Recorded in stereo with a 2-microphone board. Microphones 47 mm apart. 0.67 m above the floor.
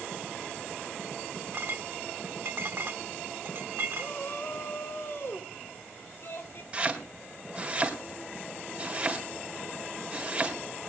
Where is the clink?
55° right (ahead or behind), 0.9 m.